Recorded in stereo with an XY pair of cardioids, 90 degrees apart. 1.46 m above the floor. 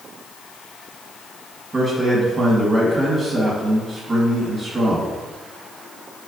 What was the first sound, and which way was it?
A man speaking, 35° right.